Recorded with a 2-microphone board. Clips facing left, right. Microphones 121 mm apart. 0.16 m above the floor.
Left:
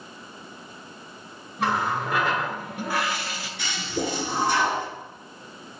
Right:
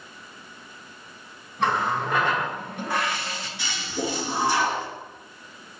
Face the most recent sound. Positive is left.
turn(degrees=55)  # may be behind; listen again after turning